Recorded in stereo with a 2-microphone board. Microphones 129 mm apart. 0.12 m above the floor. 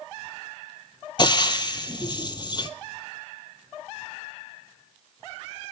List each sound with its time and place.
1.2 s frying: 35° left (ahead or behind), 0.6 m